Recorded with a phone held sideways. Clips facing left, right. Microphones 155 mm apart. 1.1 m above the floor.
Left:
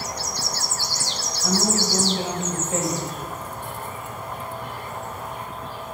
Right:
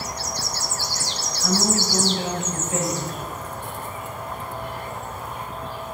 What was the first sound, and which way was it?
A woman speaking, 30° left (ahead or behind).